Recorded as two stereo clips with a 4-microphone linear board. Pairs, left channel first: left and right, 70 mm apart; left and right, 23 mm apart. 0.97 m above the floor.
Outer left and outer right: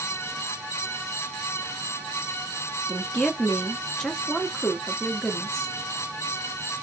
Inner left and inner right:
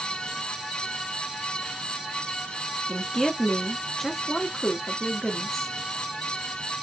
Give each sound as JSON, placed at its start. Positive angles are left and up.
{"t": 2.9, "sound": "a woman speaking", "side_deg": 10, "distance_m": 1.5}